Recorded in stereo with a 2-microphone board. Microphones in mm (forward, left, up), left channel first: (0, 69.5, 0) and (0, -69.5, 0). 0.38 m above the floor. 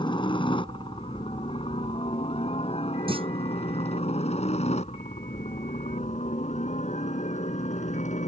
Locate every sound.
0.0 s a helicopter: 35° left (ahead or behind); by 8.3 s 60° left (ahead or behind)
3.1 s a clunk: 40° right (ahead or behind)